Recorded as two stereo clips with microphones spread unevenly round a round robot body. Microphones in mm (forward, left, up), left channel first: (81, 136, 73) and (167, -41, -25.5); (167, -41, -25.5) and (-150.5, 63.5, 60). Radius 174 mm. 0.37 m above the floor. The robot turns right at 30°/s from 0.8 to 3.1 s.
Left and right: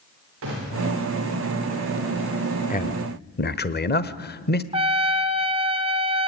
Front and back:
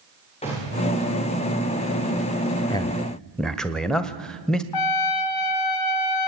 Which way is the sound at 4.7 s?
10° right.